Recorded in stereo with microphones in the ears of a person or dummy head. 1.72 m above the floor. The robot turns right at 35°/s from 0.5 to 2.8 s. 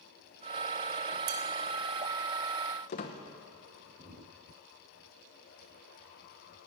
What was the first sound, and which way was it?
Dishes clattering, 50° right (ahead or behind).